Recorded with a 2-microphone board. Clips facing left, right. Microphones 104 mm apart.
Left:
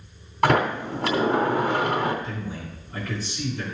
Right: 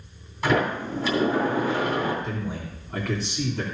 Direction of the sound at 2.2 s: 65° right (ahead or behind).